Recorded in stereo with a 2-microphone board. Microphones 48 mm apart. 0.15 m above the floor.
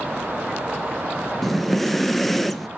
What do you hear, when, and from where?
1.4 s breathing: 5° left (ahead or behind), 0.5 m